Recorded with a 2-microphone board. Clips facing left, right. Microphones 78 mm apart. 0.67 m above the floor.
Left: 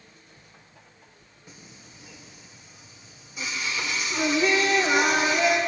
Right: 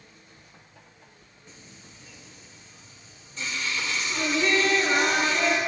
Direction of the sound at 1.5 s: 10° left (ahead or behind).